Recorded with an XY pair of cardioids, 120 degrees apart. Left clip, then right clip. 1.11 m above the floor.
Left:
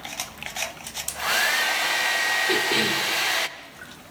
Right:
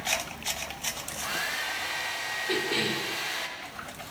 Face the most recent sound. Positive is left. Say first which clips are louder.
# left 6 dB
turn(degrees=35)